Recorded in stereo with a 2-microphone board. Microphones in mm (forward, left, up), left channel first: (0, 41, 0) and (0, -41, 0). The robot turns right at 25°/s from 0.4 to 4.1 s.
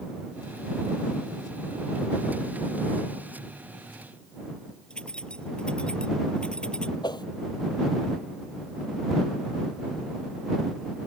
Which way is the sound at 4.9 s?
10° left (ahead or behind).